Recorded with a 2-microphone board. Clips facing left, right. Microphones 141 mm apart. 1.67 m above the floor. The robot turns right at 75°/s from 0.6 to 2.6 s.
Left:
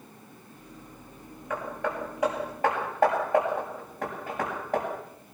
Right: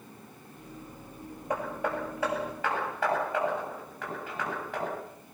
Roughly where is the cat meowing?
I don't hear a cat meowing.